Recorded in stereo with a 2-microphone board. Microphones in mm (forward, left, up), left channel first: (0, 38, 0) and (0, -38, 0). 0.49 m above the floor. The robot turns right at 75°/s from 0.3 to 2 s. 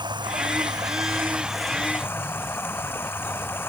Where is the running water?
95° right; by 3.7 s 30° left.